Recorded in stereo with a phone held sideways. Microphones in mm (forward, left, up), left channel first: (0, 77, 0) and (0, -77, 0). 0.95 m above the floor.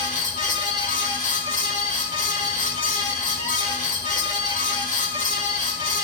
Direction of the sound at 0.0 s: 60° left (ahead or behind).